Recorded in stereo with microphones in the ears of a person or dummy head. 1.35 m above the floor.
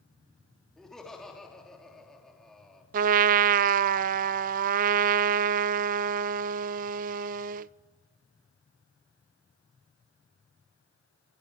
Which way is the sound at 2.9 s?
50° right (ahead or behind).